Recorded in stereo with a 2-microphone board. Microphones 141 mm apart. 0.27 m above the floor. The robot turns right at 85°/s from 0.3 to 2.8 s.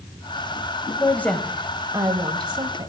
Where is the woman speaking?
20° left (ahead or behind), 1.1 m; by 2.9 s 30° right (ahead or behind), 1.1 m.